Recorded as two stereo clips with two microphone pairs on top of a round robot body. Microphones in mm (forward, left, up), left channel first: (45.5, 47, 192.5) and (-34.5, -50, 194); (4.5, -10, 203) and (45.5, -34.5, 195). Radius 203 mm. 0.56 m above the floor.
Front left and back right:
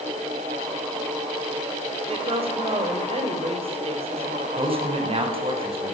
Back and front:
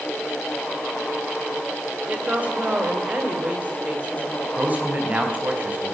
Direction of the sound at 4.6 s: 85° right.